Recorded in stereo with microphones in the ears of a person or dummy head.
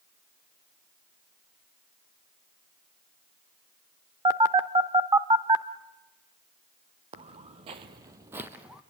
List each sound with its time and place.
4.2 s a phone buzzing: 20° right (ahead or behind), 0.9 m
7.1 s footsteps: 30° right (ahead or behind), 1.7 m; by 8.8 s 5° right (ahead or behind), 1.9 m